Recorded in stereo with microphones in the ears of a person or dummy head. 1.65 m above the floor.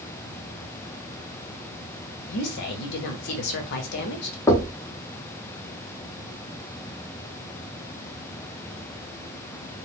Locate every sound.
2.3 s a woman speaking: 55° left (ahead or behind), 0.6 m
4.5 s knocking: 15° left (ahead or behind), 0.6 m